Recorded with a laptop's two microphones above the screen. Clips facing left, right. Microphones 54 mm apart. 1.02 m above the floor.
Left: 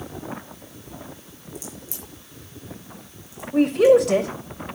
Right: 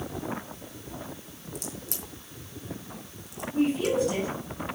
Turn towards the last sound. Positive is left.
turn(degrees=70)  # may be behind; listen again after turning